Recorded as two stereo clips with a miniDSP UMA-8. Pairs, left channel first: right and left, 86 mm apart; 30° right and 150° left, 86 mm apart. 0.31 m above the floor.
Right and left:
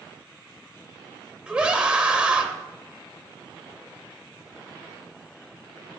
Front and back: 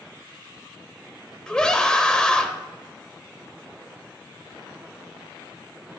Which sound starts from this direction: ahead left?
A scream, at 1.5 s.